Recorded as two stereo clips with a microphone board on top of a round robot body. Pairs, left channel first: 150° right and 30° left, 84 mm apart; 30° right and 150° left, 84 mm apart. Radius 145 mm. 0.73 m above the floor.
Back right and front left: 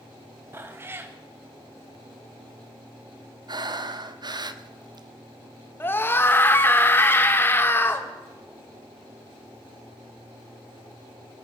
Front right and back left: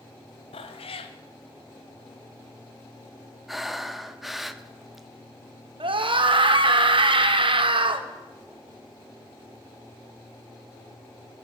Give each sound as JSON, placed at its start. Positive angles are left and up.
{"t": 0.5, "sound": "a cat meowing", "azimuth_deg": -35, "distance_m": 1.5}
{"t": 3.5, "sound": "breathing", "azimuth_deg": 60, "distance_m": 1.4}
{"t": 5.8, "sound": "a scream", "azimuth_deg": 145, "distance_m": 3.0}